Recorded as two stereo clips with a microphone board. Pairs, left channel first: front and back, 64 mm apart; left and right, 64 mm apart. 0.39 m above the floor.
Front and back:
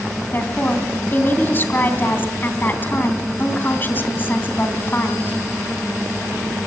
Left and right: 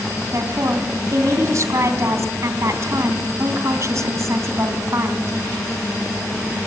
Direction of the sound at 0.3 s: 60° right.